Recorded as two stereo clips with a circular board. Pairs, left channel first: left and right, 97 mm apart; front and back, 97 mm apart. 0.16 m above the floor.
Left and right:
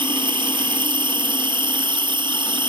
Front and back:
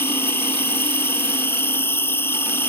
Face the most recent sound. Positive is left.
turn(degrees=-65)